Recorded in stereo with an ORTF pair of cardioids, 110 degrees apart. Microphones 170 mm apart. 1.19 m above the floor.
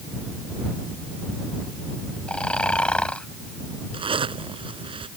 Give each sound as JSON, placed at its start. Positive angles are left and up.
{"t": 2.3, "sound": "snoring", "azimuth_deg": 5}
{"t": 3.9, "sound": "a zipper", "azimuth_deg": -30}